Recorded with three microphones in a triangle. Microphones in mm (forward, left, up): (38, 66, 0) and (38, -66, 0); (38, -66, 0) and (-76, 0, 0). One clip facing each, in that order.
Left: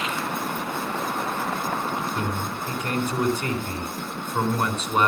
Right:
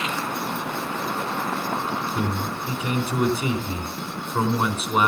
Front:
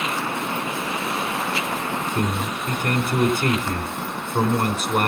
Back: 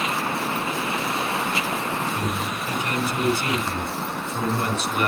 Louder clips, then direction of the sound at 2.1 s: Right 2 dB, front 2 dB; 10° right.